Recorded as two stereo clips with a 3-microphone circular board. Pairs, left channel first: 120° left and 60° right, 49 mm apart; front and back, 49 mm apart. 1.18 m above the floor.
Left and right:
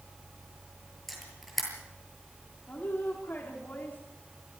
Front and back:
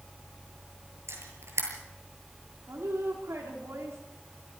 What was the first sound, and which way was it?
A camera shutter, 155° right.